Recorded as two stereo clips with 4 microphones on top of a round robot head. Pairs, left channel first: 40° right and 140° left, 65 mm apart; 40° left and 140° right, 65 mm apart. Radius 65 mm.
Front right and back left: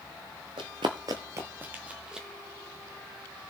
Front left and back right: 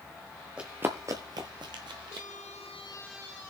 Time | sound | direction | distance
0.6 | running footsteps | 145° left | 0.9 m